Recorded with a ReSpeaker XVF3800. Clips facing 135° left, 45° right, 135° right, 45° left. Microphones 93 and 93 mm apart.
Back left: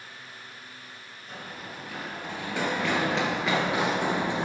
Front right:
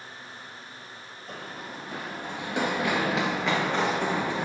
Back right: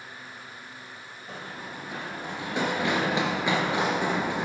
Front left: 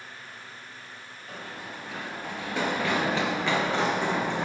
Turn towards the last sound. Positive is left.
turn(degrees=155)